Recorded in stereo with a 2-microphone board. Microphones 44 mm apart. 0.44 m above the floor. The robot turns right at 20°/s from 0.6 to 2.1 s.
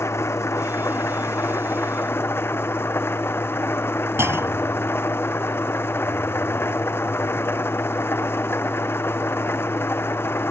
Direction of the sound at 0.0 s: 90° left.